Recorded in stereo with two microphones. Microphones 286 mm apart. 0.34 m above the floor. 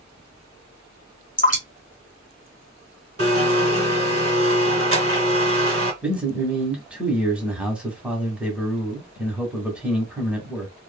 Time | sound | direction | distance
1.4 | dripping | 25° left (ahead or behind) | 1.2 m
3.2 | a blender | 50° right (ahead or behind) | 1.0 m
6.0 | a man speaking | 5° right (ahead or behind) | 1.1 m